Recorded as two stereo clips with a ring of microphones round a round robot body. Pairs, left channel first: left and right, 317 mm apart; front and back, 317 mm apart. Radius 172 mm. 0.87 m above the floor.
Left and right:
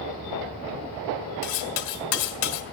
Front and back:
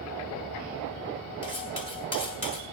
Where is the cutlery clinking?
75° left, 2 m.